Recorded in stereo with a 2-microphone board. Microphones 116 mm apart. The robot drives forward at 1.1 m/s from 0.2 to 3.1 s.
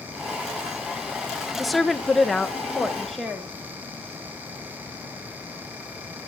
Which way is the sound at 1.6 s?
Centre (ahead or behind).